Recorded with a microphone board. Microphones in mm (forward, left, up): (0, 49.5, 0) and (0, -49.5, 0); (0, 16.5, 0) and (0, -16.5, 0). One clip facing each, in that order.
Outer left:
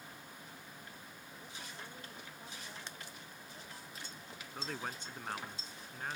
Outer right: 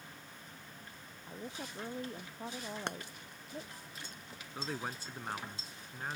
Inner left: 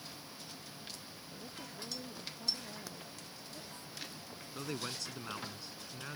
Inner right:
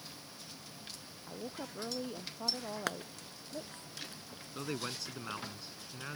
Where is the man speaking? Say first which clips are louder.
Outer right 2 dB, inner right 2 dB; 10° right (ahead or behind).